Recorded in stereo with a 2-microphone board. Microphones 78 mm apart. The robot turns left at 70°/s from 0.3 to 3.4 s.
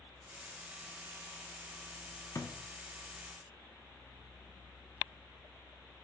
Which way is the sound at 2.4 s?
40° left (ahead or behind).